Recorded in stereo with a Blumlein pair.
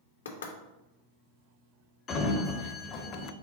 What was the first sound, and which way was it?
Knocking, 65° left.